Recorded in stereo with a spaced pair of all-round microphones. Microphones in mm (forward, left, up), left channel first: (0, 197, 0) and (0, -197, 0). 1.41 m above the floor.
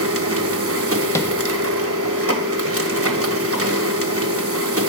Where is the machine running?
35° right (ahead or behind), 0.9 m.